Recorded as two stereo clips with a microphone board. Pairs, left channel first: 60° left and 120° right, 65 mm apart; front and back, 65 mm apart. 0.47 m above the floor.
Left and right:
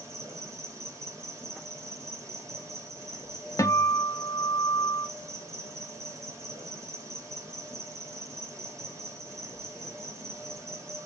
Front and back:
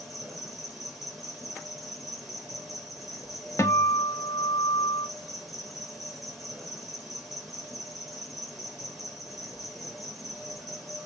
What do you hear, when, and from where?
0.0 s an insect: 95° right, 1.2 m
3.6 s a guitar: 35° left, 0.5 m